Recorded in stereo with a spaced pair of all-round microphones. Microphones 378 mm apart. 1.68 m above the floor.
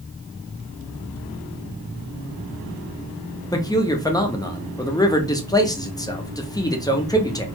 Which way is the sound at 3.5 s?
10° left (ahead or behind).